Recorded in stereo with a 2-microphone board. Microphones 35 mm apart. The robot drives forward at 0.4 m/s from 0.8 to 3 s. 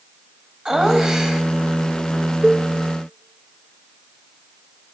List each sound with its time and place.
0.7 s laughter: 20° right (ahead or behind), 2.5 m; by 1.4 s 25° right (ahead or behind), 2 m
2.4 s a cowbell: 30° right (ahead or behind), 0.9 m